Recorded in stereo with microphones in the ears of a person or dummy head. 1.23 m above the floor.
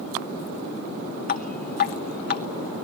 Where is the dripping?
45° left (ahead or behind), 0.9 m.